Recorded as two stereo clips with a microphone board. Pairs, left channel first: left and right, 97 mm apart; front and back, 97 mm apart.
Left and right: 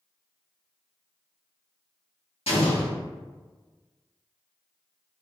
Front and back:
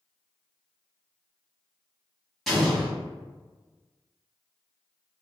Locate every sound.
2.5 s an explosion: 90° left, 1.2 m